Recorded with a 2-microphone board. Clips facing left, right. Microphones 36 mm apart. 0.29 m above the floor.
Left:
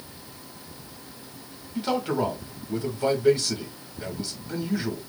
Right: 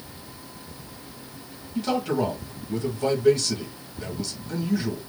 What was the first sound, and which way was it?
A man speaking, 15° left (ahead or behind).